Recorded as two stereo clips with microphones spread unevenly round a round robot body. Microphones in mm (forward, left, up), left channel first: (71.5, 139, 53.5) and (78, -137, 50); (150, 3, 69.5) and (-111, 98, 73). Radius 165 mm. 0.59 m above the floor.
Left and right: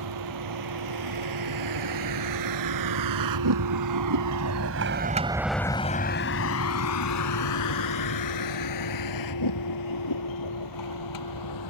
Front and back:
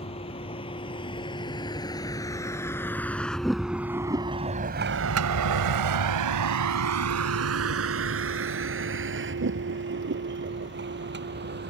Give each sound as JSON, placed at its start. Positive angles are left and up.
{"t": 0.0, "sound": "a vehicle", "azimuth_deg": -90}